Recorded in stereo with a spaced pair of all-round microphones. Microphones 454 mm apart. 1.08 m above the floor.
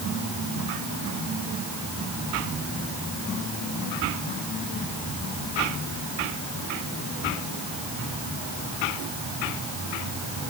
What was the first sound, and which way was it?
Only background noise.